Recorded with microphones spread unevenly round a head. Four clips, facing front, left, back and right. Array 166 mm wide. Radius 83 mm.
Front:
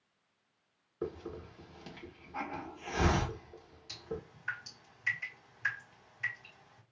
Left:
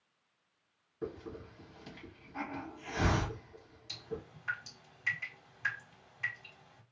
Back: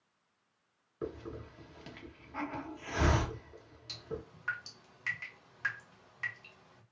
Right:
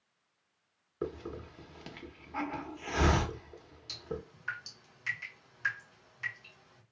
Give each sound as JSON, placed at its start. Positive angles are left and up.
{"t": 1.0, "sound": "a hiss", "azimuth_deg": -80, "distance_m": 1.1}
{"t": 3.9, "sound": "dripping", "azimuth_deg": 180, "distance_m": 2.0}